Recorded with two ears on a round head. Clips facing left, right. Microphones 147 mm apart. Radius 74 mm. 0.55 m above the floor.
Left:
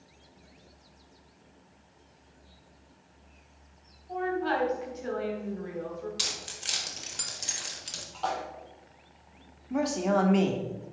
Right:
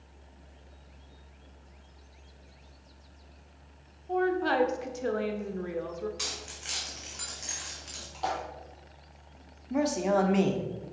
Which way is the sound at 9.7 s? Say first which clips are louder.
Even; 5° right (ahead or behind).